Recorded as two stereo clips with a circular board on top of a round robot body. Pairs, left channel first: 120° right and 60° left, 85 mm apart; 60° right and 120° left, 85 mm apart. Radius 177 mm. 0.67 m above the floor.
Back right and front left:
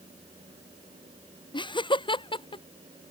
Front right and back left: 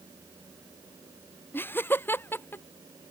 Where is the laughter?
120° right; by 2.6 s 125° right.